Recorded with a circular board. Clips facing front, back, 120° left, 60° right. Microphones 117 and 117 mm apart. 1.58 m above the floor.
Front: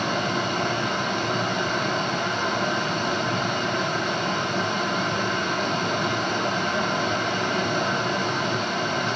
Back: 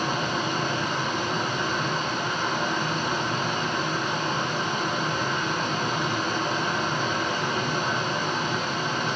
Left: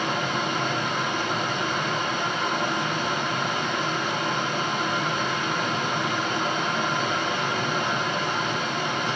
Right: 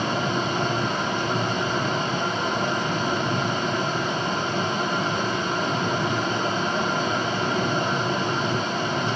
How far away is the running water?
About 3 m.